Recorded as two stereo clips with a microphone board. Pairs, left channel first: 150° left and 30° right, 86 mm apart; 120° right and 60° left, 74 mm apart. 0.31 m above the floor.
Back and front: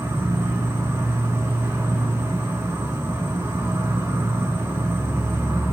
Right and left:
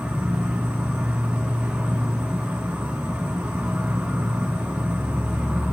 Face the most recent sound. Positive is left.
turn(degrees=-5)